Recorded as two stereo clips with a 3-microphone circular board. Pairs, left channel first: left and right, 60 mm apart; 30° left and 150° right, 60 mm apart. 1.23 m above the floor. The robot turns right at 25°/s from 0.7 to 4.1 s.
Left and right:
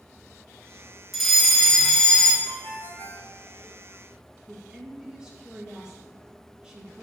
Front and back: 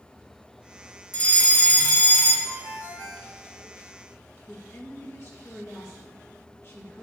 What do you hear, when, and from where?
1.1 s a fire alarm: straight ahead, 1.5 m; by 2.4 s 30° left, 1.5 m
2.5 s a ringtone: 45° right, 3.5 m; by 3.3 s 20° right, 3.5 m
4.5 s a woman speaking: 15° right, 1.9 m